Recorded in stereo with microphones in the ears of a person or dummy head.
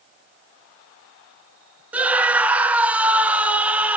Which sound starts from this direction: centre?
A scream, at 1.9 s.